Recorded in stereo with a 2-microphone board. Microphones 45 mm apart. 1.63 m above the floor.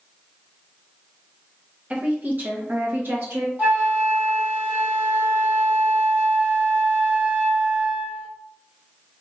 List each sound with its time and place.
1.9 s a woman speaking: 30° right (ahead or behind), 0.9 m; by 3.5 s 55° right (ahead or behind), 1.7 m
3.6 s a flute: 40° right (ahead or behind), 1.7 m